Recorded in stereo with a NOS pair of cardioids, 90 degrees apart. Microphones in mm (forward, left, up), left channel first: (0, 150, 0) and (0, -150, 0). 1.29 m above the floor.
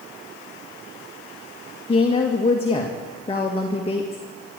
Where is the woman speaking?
20° left, 1.8 m.